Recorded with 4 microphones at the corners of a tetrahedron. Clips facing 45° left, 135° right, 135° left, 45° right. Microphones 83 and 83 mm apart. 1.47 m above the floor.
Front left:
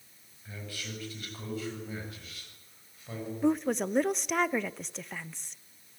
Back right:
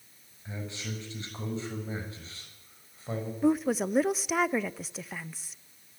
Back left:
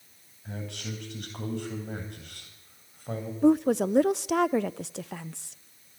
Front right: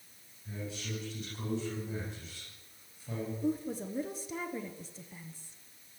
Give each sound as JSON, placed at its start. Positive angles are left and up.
{"t": 0.5, "sound": "a man speaking", "azimuth_deg": 155, "distance_m": 7.5}
{"t": 3.4, "sound": "a woman speaking", "azimuth_deg": 140, "distance_m": 0.7}